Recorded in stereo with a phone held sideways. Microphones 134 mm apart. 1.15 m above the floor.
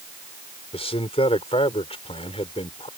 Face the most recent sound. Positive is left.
turn(degrees=50)  # may be behind; listen again after turning